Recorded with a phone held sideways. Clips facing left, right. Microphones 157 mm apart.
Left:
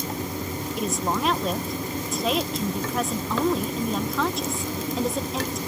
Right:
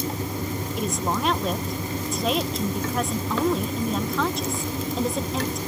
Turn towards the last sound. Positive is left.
turn(degrees=0)  # may be behind; listen again after turning